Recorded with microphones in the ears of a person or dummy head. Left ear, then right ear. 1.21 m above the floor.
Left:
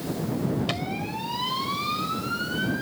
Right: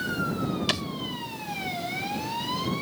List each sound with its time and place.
0.7 s a thud: 40° right (ahead or behind)